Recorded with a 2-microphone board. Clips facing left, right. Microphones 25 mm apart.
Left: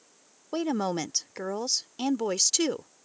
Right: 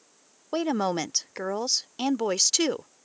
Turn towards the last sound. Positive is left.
turn(degrees=-15)  # may be behind; listen again after turning